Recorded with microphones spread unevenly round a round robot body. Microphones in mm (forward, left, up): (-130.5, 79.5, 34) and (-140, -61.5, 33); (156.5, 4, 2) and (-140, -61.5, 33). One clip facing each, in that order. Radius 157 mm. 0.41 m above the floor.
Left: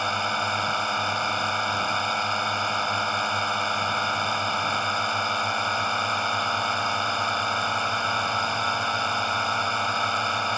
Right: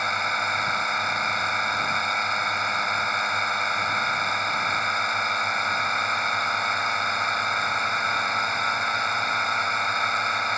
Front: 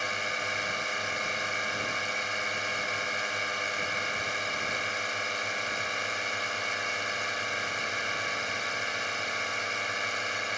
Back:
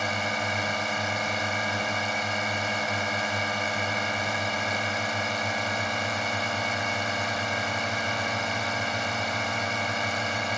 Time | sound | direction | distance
0.0 | a drone | 165° left | ?